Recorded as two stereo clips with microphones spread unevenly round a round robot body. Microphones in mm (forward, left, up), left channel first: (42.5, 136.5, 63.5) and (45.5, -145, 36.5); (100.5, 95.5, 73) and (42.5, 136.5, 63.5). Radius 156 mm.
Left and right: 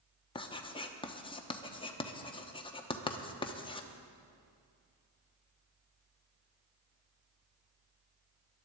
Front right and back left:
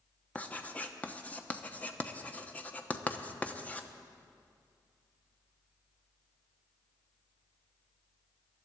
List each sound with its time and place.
0.3 s writing: 30° left, 1.1 m